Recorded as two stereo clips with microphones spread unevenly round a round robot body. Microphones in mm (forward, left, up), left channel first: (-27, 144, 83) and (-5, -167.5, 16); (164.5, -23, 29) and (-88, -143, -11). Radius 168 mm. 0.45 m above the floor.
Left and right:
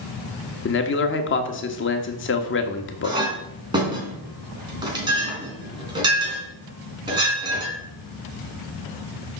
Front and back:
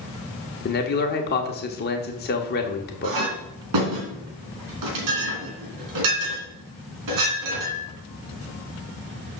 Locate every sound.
0.7 s a man speaking: 60° left, 1.2 m
3.0 s a clink: 160° right, 3 m